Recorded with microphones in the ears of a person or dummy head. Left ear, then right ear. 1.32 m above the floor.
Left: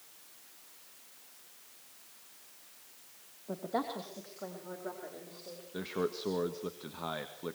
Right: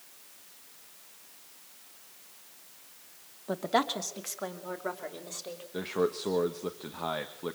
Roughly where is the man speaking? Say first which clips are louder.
Right 5 dB; centre.